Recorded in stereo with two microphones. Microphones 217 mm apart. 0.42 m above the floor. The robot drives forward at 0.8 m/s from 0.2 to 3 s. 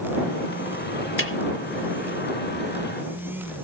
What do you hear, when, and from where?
1.2 s a snare drum: 70° left (ahead or behind), 1.6 m; by 1.3 s 75° left (ahead or behind), 1.5 m